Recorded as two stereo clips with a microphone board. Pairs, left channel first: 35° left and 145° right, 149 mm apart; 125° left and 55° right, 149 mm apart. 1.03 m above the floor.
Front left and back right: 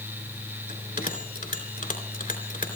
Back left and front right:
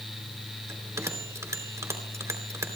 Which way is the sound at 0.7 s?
15° left.